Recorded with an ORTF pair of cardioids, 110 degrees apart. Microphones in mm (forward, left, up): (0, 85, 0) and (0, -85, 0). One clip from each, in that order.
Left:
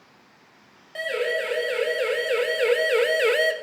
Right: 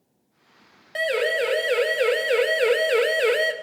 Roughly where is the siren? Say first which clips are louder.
Right 3 dB; ahead right.